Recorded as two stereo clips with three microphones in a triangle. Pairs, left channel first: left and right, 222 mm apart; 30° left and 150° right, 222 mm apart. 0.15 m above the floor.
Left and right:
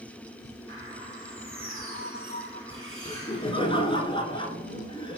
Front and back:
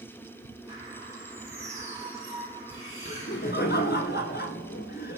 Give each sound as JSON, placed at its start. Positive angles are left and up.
{"t": 0.7, "sound": "a bird", "azimuth_deg": -75, "distance_m": 4.5}
{"t": 3.0, "sound": "laughter", "azimuth_deg": 30, "distance_m": 1.5}